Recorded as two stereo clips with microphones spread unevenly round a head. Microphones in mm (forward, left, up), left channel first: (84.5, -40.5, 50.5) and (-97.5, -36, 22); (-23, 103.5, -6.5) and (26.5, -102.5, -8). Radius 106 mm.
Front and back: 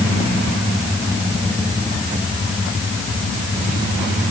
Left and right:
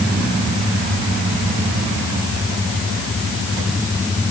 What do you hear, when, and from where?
Only background noise.